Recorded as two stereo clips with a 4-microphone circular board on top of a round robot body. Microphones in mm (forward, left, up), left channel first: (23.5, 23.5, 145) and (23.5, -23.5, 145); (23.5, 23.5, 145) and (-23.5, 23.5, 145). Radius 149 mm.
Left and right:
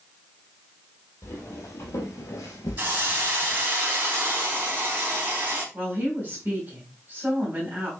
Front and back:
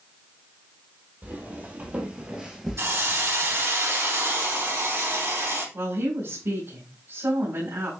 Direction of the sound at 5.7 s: 145° right.